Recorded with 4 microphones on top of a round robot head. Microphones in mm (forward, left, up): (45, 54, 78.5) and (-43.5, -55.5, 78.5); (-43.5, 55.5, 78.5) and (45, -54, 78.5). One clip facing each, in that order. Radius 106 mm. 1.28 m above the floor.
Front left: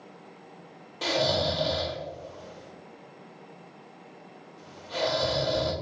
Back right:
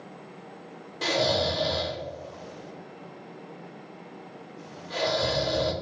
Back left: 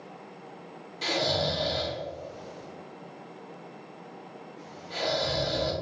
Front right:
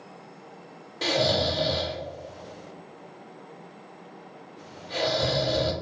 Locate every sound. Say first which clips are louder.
1.0 s snoring: back right 1 dB, front right 4 dB; 40° right, 1.7 m